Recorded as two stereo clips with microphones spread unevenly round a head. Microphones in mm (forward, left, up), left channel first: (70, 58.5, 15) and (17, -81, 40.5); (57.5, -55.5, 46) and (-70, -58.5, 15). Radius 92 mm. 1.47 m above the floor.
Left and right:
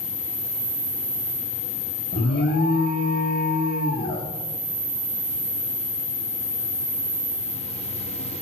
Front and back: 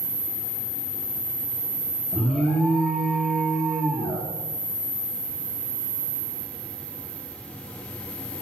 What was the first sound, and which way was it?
An alarm, 90° left.